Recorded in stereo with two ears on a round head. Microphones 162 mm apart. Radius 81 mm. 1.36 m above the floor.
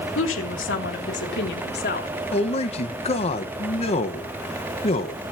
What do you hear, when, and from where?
0.1 s a woman speaking: 85° left, 2.5 m; by 2.1 s 55° left (ahead or behind), 3 m
2.3 s a man speaking: 35° left (ahead or behind), 1.4 m